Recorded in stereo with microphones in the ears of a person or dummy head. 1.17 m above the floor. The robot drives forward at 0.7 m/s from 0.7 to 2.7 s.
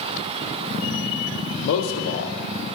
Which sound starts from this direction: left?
A man speaking, at 1.6 s.